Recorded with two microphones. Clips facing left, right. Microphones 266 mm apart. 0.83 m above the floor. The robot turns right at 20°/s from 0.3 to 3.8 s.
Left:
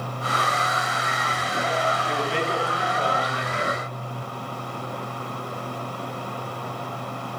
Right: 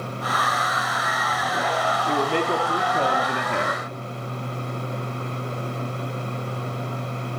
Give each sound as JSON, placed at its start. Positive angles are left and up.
{"t": 2.1, "sound": "a man speaking", "azimuth_deg": -135, "distance_m": 1.8}